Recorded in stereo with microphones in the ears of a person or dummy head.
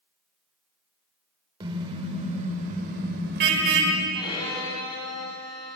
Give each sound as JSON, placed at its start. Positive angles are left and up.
{"t": 1.6, "sound": "a car horn", "side_deg": -25, "distance_m": 3.5}
{"t": 4.2, "sound": "a violin", "side_deg": 25, "distance_m": 6.0}